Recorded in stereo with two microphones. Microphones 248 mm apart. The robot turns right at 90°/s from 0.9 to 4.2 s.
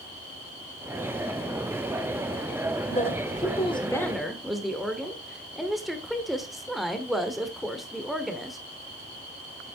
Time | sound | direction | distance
2.9 | a woman speaking | 60° left | 1.3 m